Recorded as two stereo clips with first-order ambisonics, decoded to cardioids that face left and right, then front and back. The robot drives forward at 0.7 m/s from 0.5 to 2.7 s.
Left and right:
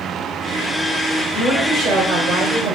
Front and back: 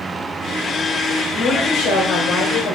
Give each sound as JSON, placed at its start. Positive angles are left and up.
{"t": 1.3, "sound": "a woman speaking", "azimuth_deg": -40, "distance_m": 3.0}